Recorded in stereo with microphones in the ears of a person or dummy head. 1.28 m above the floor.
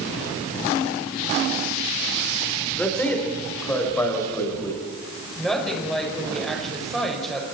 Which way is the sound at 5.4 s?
5° right (ahead or behind).